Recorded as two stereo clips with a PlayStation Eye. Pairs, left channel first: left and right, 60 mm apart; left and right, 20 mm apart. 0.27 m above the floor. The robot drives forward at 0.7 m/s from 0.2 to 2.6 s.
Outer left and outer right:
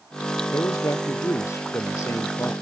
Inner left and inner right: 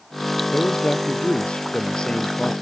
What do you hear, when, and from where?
0.5 s a man speaking: 60° left (ahead or behind); by 2.5 s 50° left (ahead or behind)